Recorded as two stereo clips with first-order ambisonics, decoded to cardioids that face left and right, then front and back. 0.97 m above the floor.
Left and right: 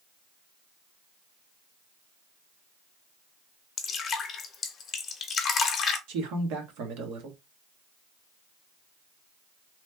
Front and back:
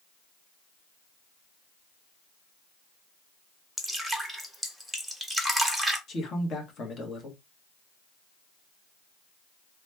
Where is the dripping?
90° left, 0.7 m.